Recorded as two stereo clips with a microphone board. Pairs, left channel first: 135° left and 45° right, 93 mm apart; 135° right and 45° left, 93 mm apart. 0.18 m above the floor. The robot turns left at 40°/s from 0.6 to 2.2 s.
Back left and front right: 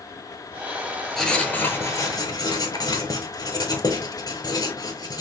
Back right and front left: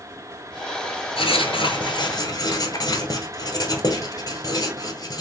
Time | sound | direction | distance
1.2 | writing | 140° right | 0.9 m